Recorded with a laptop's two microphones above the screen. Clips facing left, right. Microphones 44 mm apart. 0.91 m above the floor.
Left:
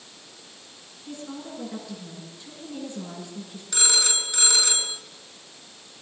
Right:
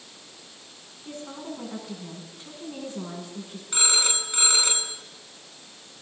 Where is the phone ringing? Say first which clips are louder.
Even; 30° right (ahead or behind), 4.5 m.